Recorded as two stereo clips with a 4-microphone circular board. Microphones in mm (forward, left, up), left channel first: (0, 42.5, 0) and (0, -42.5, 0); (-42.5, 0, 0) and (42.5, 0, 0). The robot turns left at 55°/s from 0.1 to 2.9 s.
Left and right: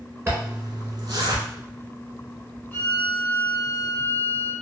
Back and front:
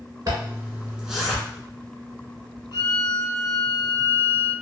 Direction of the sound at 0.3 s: 35° right.